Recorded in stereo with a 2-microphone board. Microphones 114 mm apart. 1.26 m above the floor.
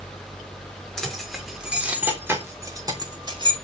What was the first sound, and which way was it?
Keys jangling, 5° left (ahead or behind).